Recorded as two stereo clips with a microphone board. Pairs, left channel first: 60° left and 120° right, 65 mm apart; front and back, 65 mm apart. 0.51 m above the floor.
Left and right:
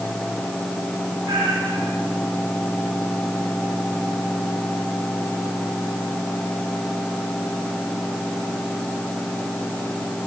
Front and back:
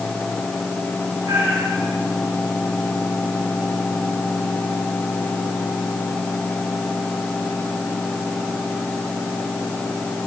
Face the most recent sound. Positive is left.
turn(degrees=-140)